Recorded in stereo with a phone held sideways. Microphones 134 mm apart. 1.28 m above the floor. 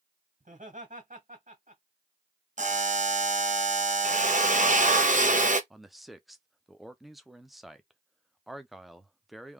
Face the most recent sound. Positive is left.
turn(degrees=0)  # may be behind; listen again after turning